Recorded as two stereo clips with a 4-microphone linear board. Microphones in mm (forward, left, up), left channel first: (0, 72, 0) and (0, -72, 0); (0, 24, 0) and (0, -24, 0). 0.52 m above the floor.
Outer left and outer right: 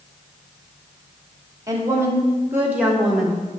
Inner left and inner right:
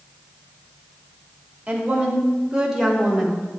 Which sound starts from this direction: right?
A woman speaking, at 1.7 s.